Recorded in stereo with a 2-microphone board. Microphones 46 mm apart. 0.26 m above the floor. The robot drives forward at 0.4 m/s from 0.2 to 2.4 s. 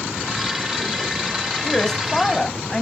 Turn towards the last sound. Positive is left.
turn(degrees=10)  # may be behind; listen again after turning